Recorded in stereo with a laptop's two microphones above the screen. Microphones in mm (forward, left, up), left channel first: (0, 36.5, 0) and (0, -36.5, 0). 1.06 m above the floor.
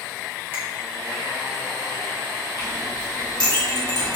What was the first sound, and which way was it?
A finger snap, 30° right (ahead or behind).